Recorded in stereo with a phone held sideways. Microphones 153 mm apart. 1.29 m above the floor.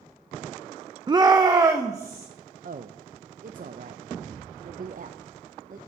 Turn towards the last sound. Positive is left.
turn(degrees=-65)  # may be behind; listen again after turning